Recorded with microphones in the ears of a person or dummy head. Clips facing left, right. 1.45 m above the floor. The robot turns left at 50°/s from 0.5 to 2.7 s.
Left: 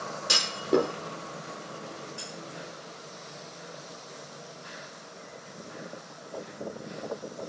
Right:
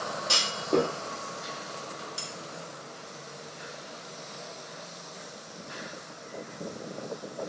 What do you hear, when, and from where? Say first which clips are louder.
0.3 s a clunk: left 2 dB; 25° left (ahead or behind), 0.7 m; by 0.9 s 5° left (ahead or behind), 0.7 m
2.2 s cutlery clinking: even; 55° right (ahead or behind), 1.7 m; by 2.3 s 60° right (ahead or behind), 1.7 m